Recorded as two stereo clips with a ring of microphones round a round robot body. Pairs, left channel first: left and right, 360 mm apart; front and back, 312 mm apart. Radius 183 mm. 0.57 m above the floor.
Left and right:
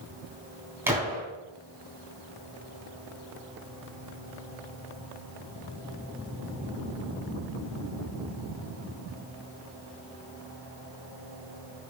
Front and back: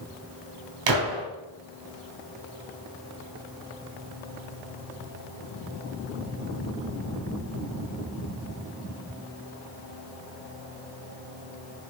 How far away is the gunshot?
About 3 m.